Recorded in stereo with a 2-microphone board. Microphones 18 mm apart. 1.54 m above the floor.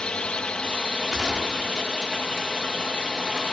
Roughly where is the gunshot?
Right.